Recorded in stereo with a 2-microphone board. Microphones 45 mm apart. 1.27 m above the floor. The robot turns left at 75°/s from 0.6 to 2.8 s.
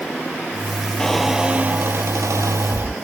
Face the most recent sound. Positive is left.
turn(degrees=-125)